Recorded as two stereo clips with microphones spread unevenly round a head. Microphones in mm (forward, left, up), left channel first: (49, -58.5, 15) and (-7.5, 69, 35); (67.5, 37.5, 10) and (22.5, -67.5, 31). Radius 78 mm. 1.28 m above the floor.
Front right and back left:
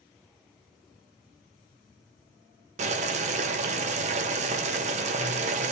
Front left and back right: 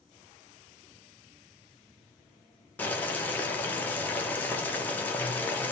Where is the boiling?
125° left, 0.5 m.